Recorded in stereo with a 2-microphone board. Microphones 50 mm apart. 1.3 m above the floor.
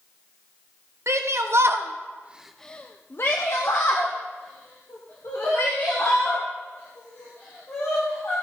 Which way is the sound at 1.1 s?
65° right (ahead or behind).